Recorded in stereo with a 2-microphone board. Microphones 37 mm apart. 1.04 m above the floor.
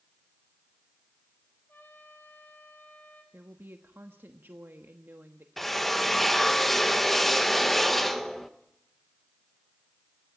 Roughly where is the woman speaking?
Right.